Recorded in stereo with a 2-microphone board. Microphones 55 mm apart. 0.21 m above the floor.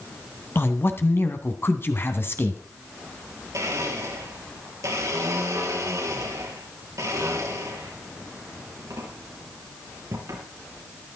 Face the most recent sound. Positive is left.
turn(degrees=-75)  # may be behind; listen again after turning